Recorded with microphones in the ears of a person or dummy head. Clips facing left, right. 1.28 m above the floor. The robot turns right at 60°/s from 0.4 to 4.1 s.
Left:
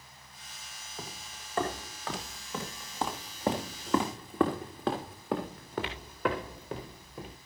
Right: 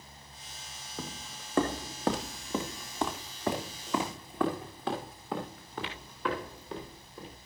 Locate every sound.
1.0 s footsteps: 60° right (ahead or behind), 2.5 m; by 7.4 s 50° left (ahead or behind), 5 m